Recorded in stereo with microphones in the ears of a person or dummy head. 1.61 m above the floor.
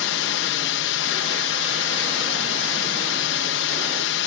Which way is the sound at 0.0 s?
60° left (ahead or behind).